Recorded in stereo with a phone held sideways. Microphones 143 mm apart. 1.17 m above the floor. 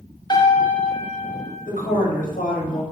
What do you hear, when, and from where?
0.3 s a piano: 30° left (ahead or behind), 0.7 m
1.7 s a woman speaking: 65° left (ahead or behind), 0.8 m